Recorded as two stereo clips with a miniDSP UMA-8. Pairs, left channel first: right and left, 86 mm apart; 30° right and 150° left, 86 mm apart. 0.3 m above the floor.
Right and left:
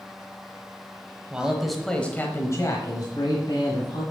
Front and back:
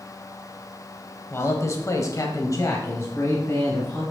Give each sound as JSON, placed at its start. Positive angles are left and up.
{"t": 1.3, "sound": "a man speaking", "azimuth_deg": 15, "distance_m": 1.4}